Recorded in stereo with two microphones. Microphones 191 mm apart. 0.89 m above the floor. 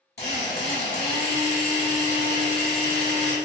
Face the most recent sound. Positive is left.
turn(degrees=60)  # may be behind; listen again after turning